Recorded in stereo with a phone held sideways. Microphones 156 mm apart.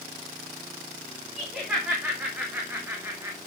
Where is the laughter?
5° right (ahead or behind), 3 m; by 3.4 s 20° right (ahead or behind), 1.3 m.